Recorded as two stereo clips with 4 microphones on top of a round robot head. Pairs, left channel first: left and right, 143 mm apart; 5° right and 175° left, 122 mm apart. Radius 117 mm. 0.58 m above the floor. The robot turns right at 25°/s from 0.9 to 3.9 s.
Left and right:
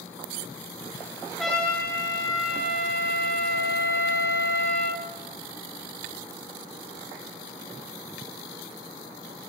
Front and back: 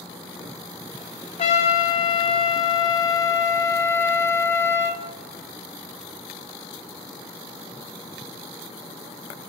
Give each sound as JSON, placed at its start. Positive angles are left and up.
{"t": 1.4, "sound": "a trumpet", "azimuth_deg": 0, "distance_m": 0.6}